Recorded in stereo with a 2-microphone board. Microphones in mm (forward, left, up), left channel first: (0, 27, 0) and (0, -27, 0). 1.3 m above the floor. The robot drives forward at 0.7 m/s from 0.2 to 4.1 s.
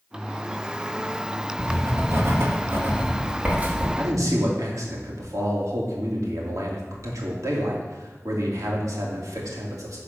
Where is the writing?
65° right (ahead or behind), 1.3 m; by 3.9 s 30° right (ahead or behind), 2.5 m.